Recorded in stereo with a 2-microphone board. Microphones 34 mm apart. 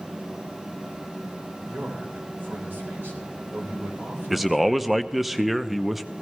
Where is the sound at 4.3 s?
5° right (ahead or behind), 0.6 m.